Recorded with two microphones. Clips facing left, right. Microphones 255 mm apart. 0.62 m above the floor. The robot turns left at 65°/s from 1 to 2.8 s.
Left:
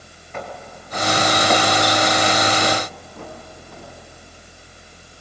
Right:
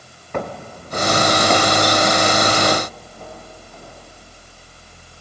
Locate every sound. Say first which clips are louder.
0.3 s footsteps: right 6 dB; 65° right (ahead or behind), 1.3 m; by 3.9 s 75° left (ahead or behind), 5.5 m